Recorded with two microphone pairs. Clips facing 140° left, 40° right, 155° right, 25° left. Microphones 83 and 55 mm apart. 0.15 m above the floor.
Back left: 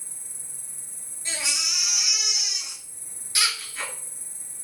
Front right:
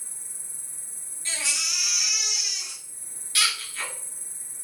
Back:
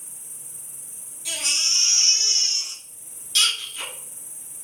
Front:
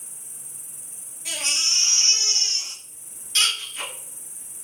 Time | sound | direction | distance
0.0 | an insect | 20° right | 1.1 m
1.2 | a baby crying | 75° left | 0.8 m